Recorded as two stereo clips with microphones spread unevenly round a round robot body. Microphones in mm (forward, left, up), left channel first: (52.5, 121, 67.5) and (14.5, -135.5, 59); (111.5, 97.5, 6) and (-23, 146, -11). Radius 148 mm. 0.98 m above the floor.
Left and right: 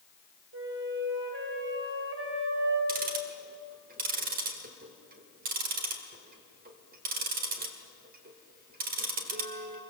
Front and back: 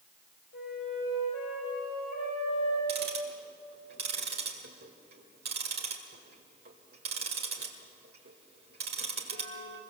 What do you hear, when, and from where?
0.5 s a flute: 55° right, 5 m
2.9 s ticking: 160° right, 1.8 m